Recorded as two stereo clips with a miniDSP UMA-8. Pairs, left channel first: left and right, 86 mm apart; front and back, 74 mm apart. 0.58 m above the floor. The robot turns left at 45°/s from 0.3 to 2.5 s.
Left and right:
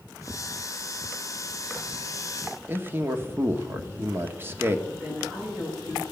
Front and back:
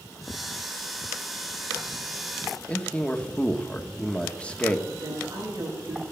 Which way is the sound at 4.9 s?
165° right.